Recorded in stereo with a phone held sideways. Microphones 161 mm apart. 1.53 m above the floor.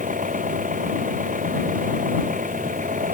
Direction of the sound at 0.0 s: 55° right (ahead or behind).